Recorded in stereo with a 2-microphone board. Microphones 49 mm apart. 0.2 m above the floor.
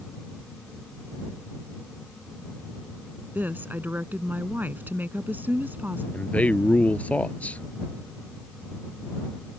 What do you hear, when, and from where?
3.4 s a woman speaking: 40° right (ahead or behind)
6.1 s a man speaking: 25° left (ahead or behind)